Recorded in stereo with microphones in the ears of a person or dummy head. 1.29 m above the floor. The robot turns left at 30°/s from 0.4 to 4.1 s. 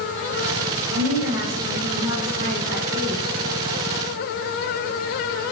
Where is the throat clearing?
No throat clearing in this recording.